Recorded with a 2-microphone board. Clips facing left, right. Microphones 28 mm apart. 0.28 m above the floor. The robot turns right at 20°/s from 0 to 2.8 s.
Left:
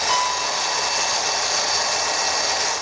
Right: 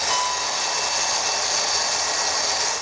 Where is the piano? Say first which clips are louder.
Left 3 dB; 45° left (ahead or behind), 2 m; by 1.2 s 60° left (ahead or behind), 2 m.